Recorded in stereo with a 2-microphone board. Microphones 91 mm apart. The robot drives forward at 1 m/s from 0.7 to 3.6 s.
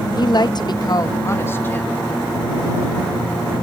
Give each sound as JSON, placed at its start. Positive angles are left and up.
{"t": 0.2, "sound": "a woman speaking", "side_deg": 50, "distance_m": 0.6}